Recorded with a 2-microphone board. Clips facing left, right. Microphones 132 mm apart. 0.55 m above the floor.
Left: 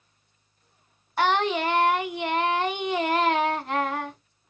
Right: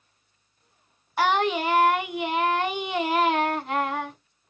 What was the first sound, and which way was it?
Singing, 5° right (ahead or behind).